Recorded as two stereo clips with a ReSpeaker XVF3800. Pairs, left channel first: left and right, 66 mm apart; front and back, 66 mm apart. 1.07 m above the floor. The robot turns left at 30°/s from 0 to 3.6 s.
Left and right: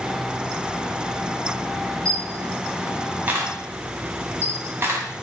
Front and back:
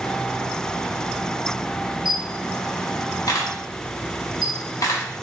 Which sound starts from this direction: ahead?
A camera shutter, at 2.0 s.